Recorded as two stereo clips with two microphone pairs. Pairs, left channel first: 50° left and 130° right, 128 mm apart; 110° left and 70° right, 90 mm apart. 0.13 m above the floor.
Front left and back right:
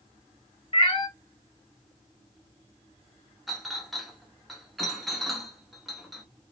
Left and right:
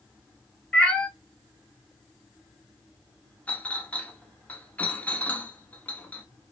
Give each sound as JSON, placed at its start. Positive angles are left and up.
{"t": 0.7, "sound": "a cat meowing", "azimuth_deg": 40, "distance_m": 0.9}
{"t": 3.5, "sound": "a clink", "azimuth_deg": 140, "distance_m": 0.7}